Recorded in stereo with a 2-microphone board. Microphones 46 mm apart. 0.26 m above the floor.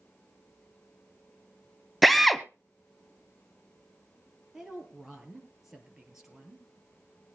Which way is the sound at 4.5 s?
10° right (ahead or behind).